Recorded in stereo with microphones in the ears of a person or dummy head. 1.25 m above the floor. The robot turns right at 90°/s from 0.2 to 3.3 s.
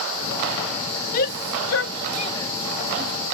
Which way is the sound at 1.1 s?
50° left (ahead or behind).